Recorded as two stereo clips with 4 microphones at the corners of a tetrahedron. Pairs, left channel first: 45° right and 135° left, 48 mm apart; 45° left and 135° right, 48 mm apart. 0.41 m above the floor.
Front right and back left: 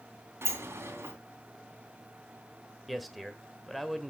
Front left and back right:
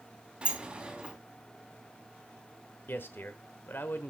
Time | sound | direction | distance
0.4 | a sliding door | 160° left | 3 m
2.9 | a man speaking | 45° left | 1.3 m